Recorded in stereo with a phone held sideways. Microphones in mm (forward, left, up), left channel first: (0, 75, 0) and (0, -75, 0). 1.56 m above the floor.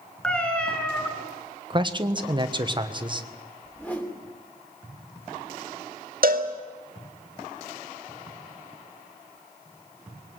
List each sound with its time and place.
0.2 s a cat meowing: 5° left (ahead or behind), 3 m
1.7 s a man speaking: 30° right (ahead or behind), 1.4 m
3.6 s a whoosh: 10° left (ahead or behind), 3 m
6.2 s a cowbell: 70° right (ahead or behind), 1.9 m